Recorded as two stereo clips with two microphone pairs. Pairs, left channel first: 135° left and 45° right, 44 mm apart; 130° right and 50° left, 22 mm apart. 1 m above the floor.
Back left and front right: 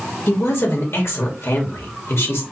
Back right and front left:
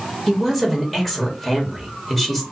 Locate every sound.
0.3 s a woman speaking: 145° left, 1.9 m